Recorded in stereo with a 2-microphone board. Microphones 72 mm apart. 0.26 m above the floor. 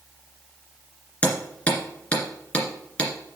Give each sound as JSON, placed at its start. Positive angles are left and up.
{"t": 1.2, "sound": "hammering", "side_deg": 15, "distance_m": 2.0}